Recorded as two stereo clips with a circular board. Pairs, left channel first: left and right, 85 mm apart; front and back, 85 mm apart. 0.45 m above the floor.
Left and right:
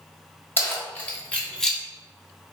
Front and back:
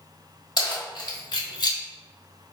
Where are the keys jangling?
30° left, 1.2 m; by 1.8 s straight ahead, 0.6 m.